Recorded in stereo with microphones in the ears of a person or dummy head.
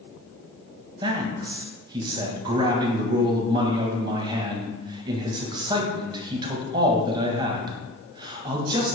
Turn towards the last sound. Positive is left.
turn(degrees=-25)  # may be behind; listen again after turning